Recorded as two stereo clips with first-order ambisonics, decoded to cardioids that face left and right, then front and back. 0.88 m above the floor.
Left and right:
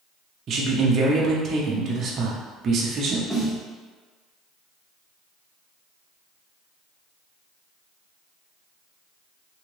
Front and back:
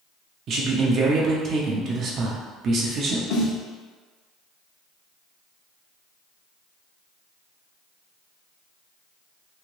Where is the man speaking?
140° right, 0.6 m.